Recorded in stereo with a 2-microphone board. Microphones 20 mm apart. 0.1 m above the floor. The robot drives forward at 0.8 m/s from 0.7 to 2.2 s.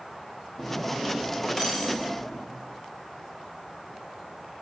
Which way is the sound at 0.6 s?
Centre (ahead or behind).